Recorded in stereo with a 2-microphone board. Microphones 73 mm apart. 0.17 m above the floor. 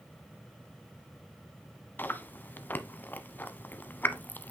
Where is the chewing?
25° left (ahead or behind), 0.9 m.